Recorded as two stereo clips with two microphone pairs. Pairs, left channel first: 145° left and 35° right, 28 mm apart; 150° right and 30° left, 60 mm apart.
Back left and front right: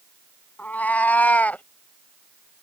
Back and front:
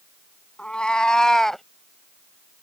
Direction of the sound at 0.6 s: 135° left.